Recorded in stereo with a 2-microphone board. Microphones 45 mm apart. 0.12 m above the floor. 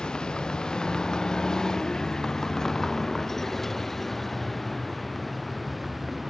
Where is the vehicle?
15° left (ahead or behind); by 6.3 s 5° right (ahead or behind).